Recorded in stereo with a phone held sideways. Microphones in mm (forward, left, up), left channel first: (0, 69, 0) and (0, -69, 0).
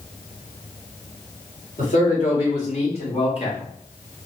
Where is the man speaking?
65° left (ahead or behind), 2.5 m; by 3.6 s 40° left (ahead or behind), 1.7 m.